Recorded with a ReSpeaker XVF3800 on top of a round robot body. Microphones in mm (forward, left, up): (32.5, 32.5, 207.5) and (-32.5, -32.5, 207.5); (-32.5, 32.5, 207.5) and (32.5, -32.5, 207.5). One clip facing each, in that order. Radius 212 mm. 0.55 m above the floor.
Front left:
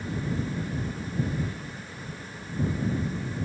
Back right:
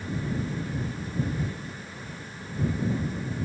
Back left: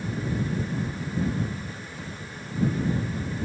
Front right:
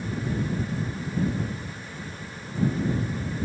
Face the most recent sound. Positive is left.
No sound to turn to.